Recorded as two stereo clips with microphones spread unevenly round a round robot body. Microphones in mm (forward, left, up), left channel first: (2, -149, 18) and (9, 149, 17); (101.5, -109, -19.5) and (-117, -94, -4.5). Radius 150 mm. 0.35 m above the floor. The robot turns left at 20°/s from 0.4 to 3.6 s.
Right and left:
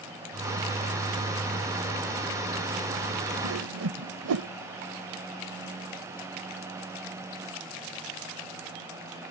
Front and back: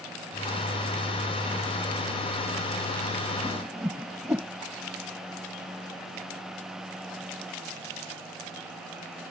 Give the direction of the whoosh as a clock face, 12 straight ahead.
9 o'clock.